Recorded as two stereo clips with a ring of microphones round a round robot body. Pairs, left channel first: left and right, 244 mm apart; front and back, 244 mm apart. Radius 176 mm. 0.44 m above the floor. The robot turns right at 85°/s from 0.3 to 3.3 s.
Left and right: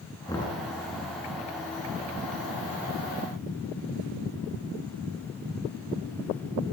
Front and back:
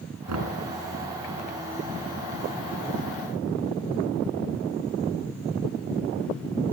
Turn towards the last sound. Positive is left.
turn(degrees=65)